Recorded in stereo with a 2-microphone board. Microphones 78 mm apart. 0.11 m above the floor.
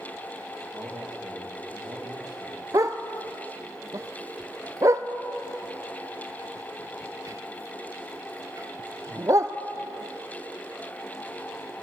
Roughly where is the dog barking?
Right.